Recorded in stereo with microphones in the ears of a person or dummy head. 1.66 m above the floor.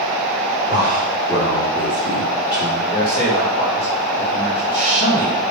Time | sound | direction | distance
0.7 | a man speaking | 35° left (ahead or behind) | 3.5 m
2.8 | a man speaking | 65° left (ahead or behind) | 3 m